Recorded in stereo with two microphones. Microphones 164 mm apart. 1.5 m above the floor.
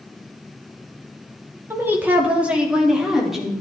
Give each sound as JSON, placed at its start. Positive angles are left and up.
{"t": 1.7, "sound": "a woman speaking", "side_deg": -15, "distance_m": 2.5}